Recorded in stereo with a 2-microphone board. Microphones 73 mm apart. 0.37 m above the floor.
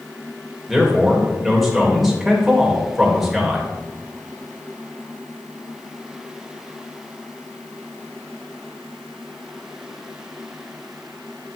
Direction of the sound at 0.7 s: 5° right (ahead or behind).